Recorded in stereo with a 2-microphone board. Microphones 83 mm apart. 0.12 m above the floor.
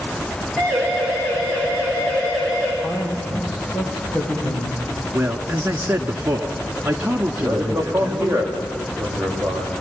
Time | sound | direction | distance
0.6 | a siren | 5° right (ahead or behind) | 10 m
2.8 | a man speaking | 25° left (ahead or behind) | 9 m
5.1 | a man speaking | 20° right (ahead or behind) | 1.3 m
7.4 | a man speaking | 15° right (ahead or behind) | 6.5 m